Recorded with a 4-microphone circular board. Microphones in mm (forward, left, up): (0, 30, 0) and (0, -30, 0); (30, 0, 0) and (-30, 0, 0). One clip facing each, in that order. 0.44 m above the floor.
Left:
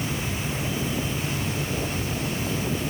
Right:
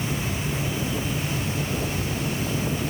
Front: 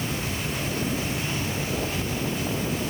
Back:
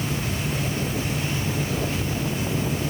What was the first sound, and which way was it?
Only background noise.